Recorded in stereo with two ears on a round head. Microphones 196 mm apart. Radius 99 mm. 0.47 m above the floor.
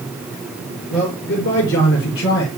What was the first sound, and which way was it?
A man speaking, 65° left (ahead or behind).